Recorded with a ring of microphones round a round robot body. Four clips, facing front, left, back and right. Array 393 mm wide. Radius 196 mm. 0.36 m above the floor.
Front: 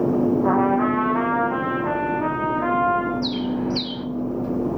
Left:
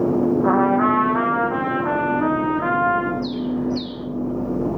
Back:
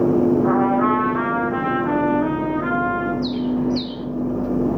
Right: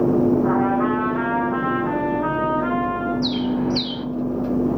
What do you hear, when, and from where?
0.4 s a trumpet: 50° left, 8 m
3.2 s a bird: 60° right, 2 m